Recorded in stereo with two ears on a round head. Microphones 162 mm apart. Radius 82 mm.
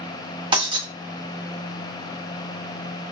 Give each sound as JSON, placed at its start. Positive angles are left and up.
{"t": 0.5, "sound": "breaking glass", "side_deg": -25, "distance_m": 0.9}